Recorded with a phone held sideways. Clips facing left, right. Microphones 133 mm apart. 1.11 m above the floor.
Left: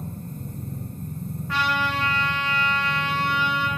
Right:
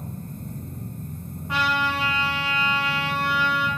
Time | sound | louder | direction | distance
0.0 | a machine running | left 1 dB | 30° left (ahead or behind) | 1.1 m
1.5 | a trumpet | right 1 dB | 20° right (ahead or behind) | 0.6 m